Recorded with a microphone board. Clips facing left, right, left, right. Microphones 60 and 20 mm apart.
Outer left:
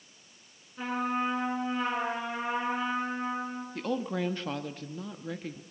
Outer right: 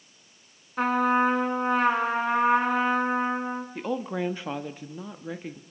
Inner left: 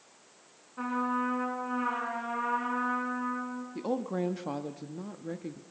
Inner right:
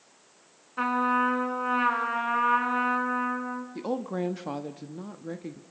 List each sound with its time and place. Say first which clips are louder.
0.8 s a trumpet: outer right 8 dB, inner right 6 dB; 65° right (ahead or behind), 2.5 m
3.8 s a woman speaking: even, even; 15° right (ahead or behind), 0.9 m